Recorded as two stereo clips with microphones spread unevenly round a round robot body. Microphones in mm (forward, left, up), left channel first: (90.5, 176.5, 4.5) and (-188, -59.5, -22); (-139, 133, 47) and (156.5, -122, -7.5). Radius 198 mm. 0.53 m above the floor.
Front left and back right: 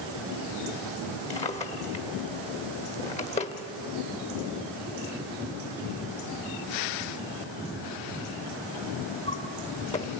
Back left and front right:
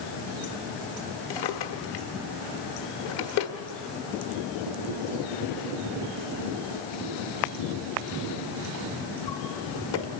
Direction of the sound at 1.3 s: 115° left.